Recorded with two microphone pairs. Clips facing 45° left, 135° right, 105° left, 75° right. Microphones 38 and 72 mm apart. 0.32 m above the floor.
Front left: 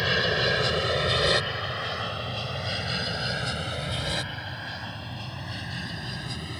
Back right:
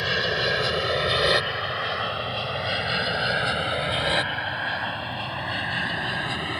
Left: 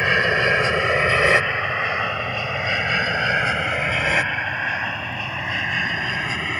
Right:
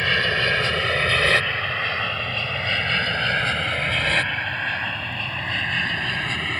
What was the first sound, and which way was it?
An aircraft, 135° left.